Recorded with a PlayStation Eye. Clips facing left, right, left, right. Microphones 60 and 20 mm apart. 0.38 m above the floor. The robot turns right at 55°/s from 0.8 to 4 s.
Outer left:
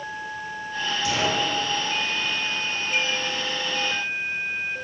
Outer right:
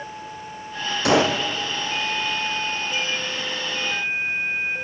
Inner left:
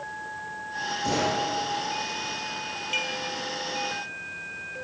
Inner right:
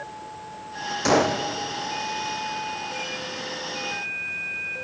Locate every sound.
1.1 s a gunshot: 65° right (ahead or behind), 3 m; by 1.4 s 85° right, 3 m
2.9 s dishes clattering: 55° left (ahead or behind), 6.5 m; by 3.2 s 40° left (ahead or behind), 6.5 m